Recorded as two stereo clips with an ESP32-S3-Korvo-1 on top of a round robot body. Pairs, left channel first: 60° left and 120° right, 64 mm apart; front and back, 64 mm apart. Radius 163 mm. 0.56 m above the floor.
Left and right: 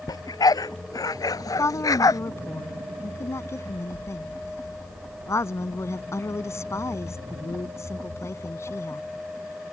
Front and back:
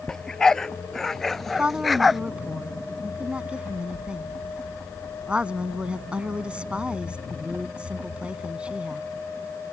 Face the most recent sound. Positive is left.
turn(degrees=105)